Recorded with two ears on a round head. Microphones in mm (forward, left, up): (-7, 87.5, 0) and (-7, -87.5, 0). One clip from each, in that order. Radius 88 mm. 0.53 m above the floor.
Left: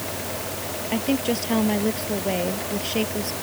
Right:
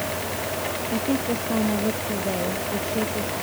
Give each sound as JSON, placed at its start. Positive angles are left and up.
{"t": 0.9, "sound": "a woman speaking", "side_deg": 85}